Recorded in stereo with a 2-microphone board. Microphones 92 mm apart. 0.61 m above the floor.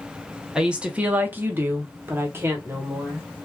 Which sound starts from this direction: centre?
A woman speaking, at 0.6 s.